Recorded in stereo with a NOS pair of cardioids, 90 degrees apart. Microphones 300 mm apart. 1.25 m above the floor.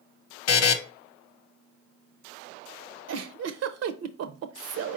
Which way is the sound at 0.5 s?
55° left.